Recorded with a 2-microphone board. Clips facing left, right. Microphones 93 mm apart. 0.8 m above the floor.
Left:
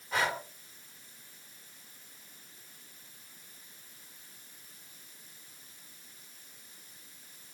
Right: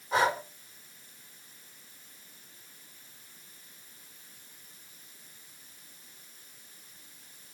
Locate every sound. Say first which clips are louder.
0.1 s breathing: right 5 dB; 20° right (ahead or behind), 1.9 m